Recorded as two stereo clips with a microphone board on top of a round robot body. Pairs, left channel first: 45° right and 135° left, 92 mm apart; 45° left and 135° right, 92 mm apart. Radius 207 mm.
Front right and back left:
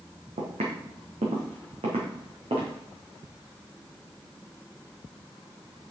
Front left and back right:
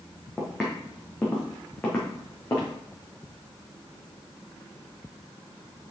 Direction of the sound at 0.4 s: 130° left.